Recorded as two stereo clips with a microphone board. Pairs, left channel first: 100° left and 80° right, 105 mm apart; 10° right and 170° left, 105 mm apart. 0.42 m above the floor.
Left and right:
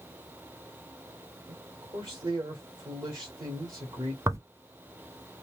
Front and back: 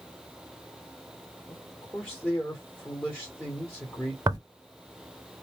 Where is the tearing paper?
135° right, 0.7 m.